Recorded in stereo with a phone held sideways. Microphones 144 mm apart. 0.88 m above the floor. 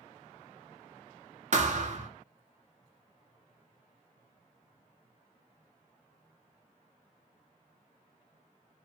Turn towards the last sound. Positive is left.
turn(degrees=-55)  # may be behind; listen again after turning